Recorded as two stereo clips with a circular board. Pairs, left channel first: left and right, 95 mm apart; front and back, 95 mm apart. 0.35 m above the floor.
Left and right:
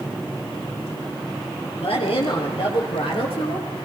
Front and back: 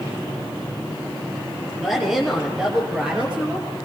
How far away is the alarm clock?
I don't hear an alarm clock.